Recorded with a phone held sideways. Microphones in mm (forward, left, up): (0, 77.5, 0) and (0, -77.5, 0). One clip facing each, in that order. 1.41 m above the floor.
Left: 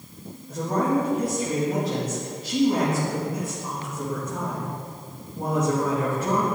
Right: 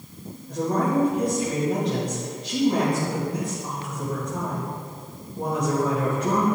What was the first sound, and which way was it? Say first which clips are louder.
A woman speaking: even; 5° left (ahead or behind).